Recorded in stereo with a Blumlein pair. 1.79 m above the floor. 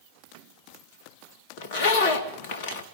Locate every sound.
1.6 s a zipper: 50° left, 2.5 m